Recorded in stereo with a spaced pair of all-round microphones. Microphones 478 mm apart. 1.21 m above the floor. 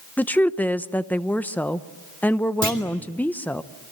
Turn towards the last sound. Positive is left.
turn(degrees=-25)  # may be behind; listen again after turning